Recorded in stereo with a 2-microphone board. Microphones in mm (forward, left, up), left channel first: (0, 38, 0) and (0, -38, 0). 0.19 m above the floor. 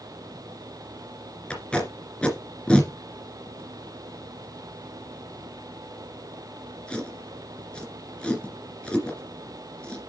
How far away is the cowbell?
No cowbell in this recording.